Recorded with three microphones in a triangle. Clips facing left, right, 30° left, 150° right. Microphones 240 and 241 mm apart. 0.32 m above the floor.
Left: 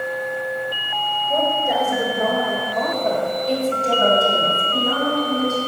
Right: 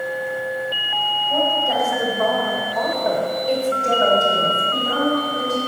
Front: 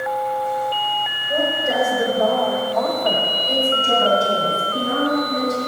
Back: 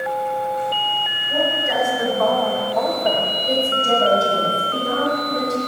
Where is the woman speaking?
25° left, 2 m; by 5.6 s 160° right, 4 m.